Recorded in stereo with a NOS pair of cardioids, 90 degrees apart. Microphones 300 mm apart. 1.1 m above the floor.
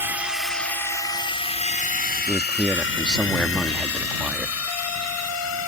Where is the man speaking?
5° right.